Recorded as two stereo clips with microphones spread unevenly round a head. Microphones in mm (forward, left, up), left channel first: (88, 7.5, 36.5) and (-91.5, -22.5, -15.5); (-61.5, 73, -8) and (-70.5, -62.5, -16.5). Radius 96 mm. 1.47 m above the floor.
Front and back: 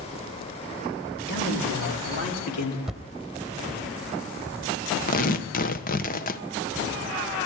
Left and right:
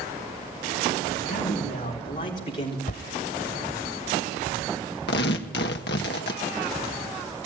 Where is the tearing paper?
60° left, 1.2 m.